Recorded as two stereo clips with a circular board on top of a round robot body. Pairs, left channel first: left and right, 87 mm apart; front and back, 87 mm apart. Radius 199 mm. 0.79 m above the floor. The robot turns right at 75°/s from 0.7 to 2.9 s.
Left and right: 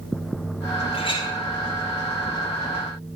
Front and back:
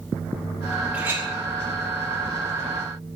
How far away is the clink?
About 4.5 m.